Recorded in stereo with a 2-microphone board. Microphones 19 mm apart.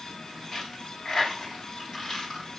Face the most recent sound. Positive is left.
turn(degrees=30)  # may be behind; listen again after turning